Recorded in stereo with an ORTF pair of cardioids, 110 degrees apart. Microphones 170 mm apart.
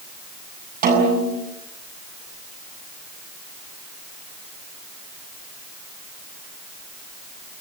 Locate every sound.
0.8 s a snare drum: 60° right, 8 m